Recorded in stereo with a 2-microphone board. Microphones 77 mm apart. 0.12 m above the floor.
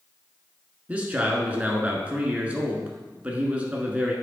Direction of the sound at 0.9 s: 20° right (ahead or behind).